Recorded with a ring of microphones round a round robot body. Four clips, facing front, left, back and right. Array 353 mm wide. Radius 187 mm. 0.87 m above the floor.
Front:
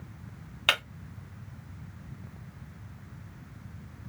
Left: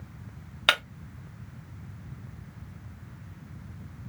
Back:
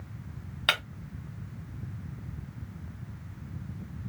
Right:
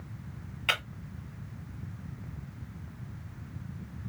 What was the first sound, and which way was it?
Breaking glass, 95° left.